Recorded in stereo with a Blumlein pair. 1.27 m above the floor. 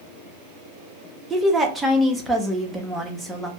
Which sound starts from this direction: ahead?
A woman speaking, at 1.3 s.